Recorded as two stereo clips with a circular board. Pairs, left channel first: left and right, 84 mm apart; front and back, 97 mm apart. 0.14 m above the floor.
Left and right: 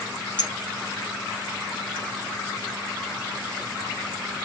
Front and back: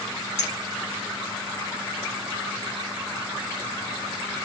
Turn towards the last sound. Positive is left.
turn(degrees=65)